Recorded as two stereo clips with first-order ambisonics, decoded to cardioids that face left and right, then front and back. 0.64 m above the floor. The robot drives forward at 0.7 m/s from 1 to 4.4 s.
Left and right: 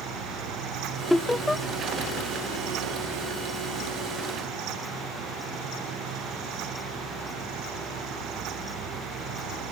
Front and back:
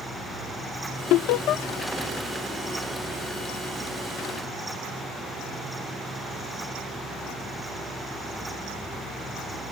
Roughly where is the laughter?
Ahead.